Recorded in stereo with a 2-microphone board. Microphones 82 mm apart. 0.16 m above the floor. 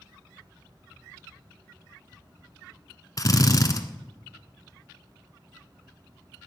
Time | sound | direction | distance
3.2 | a drill | 45° left (ahead or behind) | 1.1 m